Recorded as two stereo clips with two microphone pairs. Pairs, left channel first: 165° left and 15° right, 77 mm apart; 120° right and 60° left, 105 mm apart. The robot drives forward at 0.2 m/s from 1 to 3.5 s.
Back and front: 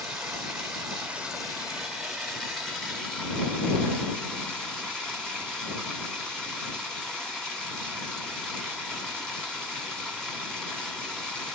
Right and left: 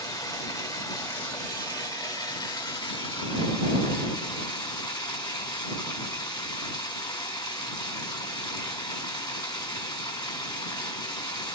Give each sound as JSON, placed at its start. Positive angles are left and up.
{"t": 0.0, "sound": "running water", "azimuth_deg": -85, "distance_m": 1.3}